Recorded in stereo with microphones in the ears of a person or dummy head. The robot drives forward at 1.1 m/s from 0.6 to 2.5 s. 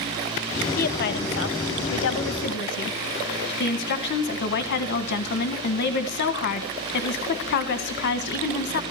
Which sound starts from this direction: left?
A woman speaking, at 0.8 s.